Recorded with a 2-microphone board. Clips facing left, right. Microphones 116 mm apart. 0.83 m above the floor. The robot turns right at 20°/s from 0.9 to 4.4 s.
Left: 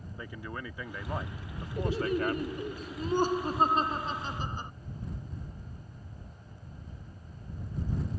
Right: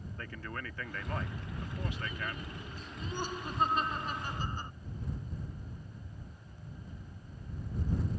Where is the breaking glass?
No breaking glass in this recording.